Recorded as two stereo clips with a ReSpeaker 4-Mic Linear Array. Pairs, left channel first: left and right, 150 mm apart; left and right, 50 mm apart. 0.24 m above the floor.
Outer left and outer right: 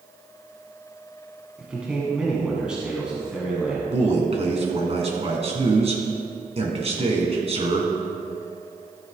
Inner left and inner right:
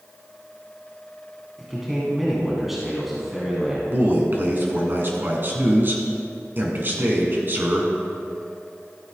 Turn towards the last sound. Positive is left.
turn(degrees=-40)  # may be behind; listen again after turning